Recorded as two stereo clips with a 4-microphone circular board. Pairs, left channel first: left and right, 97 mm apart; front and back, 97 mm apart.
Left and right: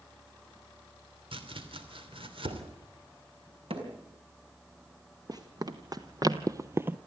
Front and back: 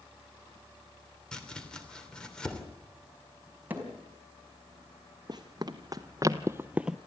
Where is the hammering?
110° right, 5 m.